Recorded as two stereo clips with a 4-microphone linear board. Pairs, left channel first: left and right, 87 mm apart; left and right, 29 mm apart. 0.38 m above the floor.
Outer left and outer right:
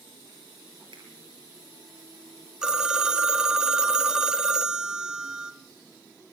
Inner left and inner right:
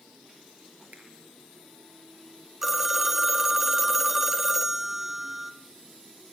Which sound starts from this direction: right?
A finger snap, at 0.9 s.